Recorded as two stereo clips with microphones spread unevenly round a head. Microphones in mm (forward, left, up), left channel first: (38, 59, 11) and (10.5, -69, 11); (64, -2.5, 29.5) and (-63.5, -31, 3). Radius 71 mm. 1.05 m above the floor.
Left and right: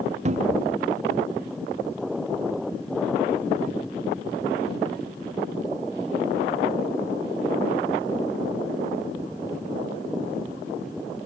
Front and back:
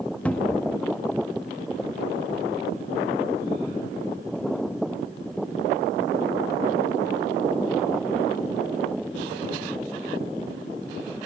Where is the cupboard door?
65° right, 0.9 m.